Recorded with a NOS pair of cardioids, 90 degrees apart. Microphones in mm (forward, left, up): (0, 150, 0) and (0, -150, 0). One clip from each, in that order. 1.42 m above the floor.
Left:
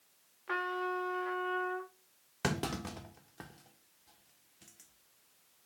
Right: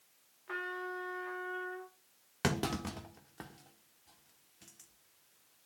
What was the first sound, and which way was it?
A trumpet, 40° left.